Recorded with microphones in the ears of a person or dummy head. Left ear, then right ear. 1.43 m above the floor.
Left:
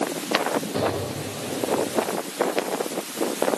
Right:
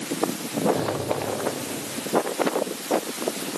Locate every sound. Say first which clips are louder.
0.7 s an explosion: even; 65° left (ahead or behind), 3.5 m